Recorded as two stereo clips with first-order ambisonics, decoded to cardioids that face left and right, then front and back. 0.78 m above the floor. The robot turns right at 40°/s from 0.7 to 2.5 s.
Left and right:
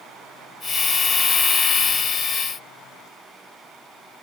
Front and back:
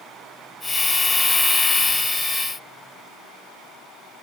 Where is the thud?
I don't hear a thud.